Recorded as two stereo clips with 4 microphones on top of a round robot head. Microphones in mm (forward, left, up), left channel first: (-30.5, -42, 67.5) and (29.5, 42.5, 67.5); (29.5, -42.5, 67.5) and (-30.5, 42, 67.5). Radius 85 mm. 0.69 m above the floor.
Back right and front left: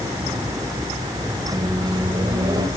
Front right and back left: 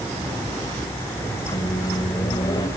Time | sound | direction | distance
1.5 | a microwave | straight ahead | 2 m